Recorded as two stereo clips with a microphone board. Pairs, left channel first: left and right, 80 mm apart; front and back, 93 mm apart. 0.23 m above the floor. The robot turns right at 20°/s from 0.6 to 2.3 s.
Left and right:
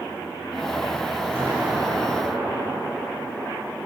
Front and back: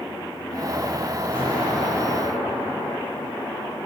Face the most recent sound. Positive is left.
turn(degrees=-5)